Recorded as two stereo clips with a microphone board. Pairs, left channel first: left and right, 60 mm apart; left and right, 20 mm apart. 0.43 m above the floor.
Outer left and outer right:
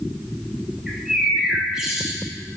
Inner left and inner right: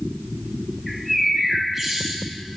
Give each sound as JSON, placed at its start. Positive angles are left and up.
{"t": 0.9, "sound": "a bird", "side_deg": -10, "distance_m": 1.2}